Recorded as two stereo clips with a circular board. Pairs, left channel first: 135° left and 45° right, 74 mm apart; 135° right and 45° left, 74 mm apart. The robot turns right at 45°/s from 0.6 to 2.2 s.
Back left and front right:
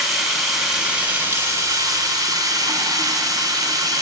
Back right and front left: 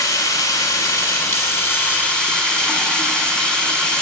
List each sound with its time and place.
0.0 s running water: 130° right, 2 m; by 4.0 s 55° right, 2 m